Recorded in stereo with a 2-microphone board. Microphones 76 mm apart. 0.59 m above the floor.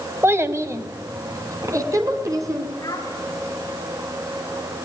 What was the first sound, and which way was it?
A child speaking, 30° right (ahead or behind).